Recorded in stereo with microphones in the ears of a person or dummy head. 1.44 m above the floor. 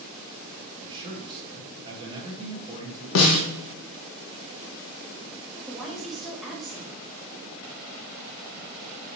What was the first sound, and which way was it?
A man speaking, 30° right (ahead or behind).